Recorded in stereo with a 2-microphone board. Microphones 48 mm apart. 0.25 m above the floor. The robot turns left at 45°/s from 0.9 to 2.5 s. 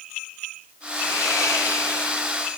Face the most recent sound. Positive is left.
turn(degrees=45)